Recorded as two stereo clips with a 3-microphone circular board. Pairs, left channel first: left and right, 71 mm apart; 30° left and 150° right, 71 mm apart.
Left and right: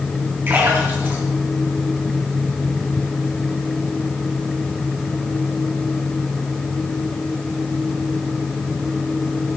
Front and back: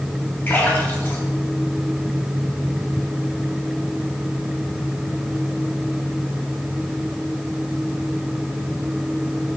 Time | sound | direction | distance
0.5 | a splash | 35° right | 3 m